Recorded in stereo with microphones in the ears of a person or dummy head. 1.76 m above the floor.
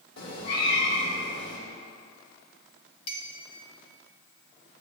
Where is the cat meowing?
60° left (ahead or behind), 2.0 m.